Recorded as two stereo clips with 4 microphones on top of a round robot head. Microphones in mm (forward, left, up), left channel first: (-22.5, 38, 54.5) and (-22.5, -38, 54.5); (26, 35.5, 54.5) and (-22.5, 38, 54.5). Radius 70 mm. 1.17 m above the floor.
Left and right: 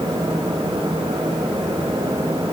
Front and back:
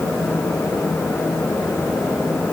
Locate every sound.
Only background noise.